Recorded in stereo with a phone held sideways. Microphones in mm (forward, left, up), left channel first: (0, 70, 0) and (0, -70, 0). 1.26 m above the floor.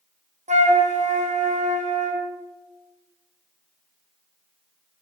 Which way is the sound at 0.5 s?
55° right (ahead or behind).